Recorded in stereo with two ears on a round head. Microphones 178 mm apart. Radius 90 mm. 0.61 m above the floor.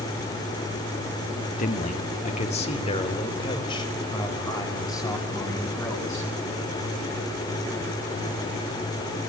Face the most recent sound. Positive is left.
turn(degrees=15)  # may be behind; listen again after turning